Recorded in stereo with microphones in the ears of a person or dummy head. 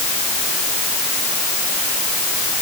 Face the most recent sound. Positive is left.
No sound to turn to.